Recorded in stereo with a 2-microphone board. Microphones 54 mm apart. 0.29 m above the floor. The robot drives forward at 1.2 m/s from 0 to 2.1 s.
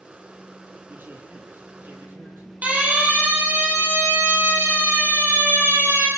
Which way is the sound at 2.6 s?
25° right (ahead or behind).